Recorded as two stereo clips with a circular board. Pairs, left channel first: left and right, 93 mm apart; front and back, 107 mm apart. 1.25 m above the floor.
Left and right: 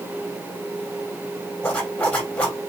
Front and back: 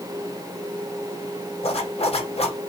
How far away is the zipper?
About 4.5 m.